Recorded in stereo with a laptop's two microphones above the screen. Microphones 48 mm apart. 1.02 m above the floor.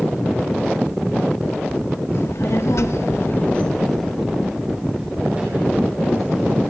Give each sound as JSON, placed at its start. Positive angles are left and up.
{"t": 2.1, "sound": "a child speaking", "side_deg": 70, "distance_m": 1.8}